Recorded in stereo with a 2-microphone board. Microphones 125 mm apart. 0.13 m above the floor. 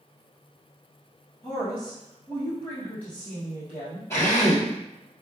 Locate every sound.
1.4 s a woman speaking: 20° left (ahead or behind), 2.5 m
4.1 s a drill: 20° left (ahead or behind), 2.5 m